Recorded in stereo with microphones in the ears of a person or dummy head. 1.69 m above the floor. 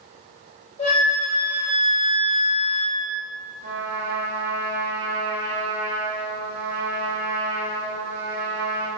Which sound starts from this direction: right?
A trumpet, at 3.6 s.